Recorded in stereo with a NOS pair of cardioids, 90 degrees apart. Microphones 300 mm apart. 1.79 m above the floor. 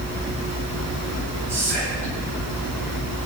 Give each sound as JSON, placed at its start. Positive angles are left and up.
{"t": 1.5, "sound": "whispering", "azimuth_deg": -65, "distance_m": 8.5}